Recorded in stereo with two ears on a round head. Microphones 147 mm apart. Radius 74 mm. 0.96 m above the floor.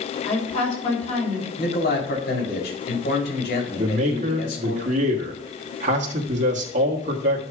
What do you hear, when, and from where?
0.2 s a woman speaking: 45° left (ahead or behind), 4 m
1.6 s a man speaking: 60° left (ahead or behind), 3 m
3.8 s a man speaking: 50° right (ahead or behind), 1.6 m